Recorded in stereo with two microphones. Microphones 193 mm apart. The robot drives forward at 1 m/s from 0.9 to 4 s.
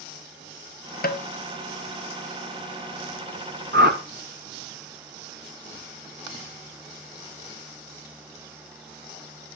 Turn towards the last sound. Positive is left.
turn(degrees=-50)  # may be behind; listen again after turning